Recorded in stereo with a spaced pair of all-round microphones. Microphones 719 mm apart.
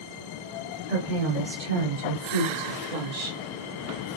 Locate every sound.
0.9 s a woman speaking: 85° right, 2.5 m; by 3.4 s 60° right (ahead or behind), 1.0 m